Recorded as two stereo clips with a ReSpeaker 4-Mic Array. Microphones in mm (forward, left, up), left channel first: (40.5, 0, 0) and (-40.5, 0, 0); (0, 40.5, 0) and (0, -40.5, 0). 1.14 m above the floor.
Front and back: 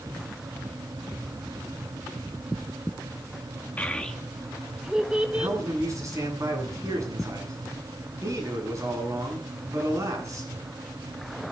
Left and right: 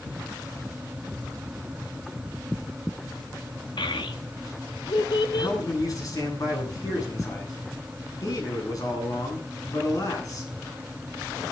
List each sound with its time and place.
3.8 s a child speaking: 70° left, 1.8 m; by 5.6 s 110° left, 3 m
5.3 s a man speaking: 130° left, 10 m